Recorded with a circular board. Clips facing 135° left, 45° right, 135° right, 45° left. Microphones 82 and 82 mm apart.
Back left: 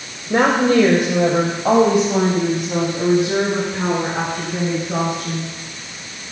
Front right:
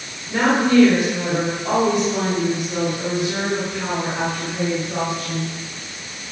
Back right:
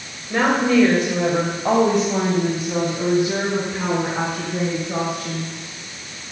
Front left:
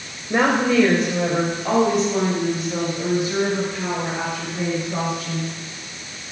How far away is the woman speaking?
About 2 m.